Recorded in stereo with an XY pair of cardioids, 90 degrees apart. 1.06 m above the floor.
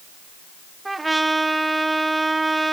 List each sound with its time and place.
0.8 s a trumpet: 15° right, 1.5 m